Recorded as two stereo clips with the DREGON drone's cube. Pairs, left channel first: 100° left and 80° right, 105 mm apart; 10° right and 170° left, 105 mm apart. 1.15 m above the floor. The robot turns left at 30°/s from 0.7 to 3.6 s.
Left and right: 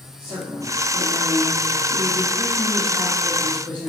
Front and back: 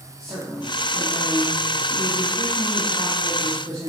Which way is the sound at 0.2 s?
100° right.